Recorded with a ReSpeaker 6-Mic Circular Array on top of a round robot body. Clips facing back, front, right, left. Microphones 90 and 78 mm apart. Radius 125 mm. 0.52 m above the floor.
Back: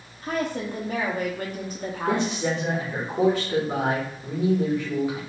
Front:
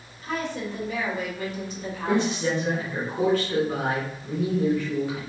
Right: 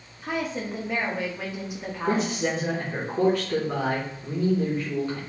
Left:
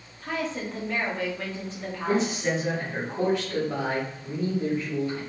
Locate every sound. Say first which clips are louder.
0.2 s a woman speaking: back 2 dB, right 1 dB; 165° right, 1.0 m
2.0 s a man speaking: front 1 dB, even; 110° right, 2 m